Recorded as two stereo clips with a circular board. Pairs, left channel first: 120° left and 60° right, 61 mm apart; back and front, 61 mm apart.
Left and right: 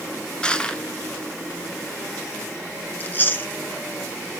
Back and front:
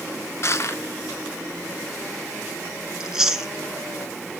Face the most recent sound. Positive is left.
turn(degrees=80)